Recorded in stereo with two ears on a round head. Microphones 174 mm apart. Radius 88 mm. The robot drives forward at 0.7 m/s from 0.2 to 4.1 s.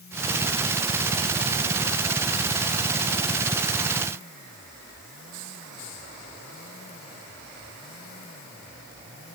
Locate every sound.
Only background noise.